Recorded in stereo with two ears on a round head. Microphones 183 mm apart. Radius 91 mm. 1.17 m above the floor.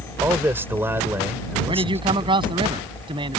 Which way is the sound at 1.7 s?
25° right (ahead or behind).